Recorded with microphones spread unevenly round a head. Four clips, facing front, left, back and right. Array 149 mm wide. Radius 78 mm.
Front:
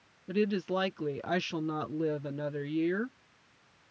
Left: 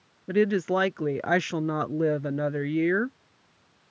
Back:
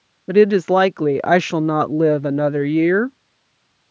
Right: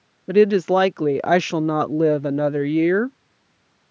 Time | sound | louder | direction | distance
0.3 | a woman speaking | right 8 dB, back 17 dB | 150° right | ?